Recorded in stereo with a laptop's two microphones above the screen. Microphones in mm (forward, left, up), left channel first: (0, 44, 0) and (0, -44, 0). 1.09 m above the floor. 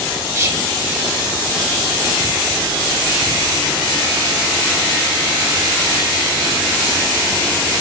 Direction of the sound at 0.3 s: 30° right (ahead or behind).